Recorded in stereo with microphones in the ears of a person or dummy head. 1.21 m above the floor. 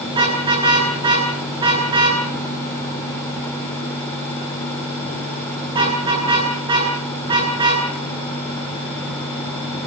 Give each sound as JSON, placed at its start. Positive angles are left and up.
{"t": 0.1, "sound": "a car horn", "side_deg": -25, "distance_m": 9.5}